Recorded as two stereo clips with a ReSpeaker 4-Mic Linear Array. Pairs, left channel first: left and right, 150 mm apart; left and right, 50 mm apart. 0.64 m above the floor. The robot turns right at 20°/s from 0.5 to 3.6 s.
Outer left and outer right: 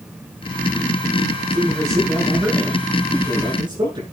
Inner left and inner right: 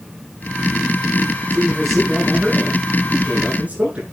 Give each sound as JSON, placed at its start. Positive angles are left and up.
{"t": 1.5, "sound": "a man speaking", "azimuth_deg": 170, "distance_m": 8.5}